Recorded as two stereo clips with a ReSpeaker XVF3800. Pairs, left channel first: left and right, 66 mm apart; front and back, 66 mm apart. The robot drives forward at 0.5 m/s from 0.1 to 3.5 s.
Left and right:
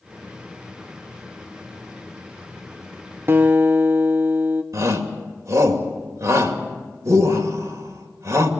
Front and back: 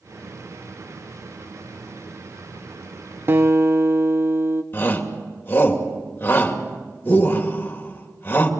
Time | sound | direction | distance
3.3 | a guitar | 135° right | 0.9 m
4.7 | a shout | 55° right | 2.5 m